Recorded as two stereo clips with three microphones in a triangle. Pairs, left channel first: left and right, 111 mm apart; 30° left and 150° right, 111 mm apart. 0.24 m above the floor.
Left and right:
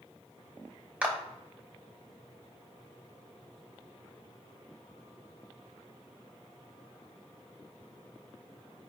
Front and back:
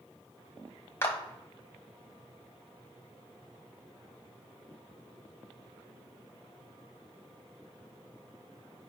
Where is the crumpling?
I don't hear crumpling.